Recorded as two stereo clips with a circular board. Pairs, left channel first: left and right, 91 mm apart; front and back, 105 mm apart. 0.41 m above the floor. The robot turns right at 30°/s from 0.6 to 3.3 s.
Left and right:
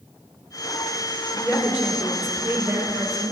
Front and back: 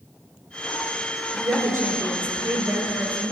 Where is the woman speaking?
165° right, 1.7 m; by 3.3 s 110° right, 1.7 m.